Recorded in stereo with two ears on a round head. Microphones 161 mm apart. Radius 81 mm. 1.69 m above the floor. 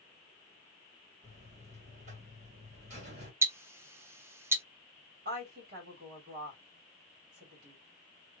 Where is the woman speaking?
60° right (ahead or behind), 2.5 m.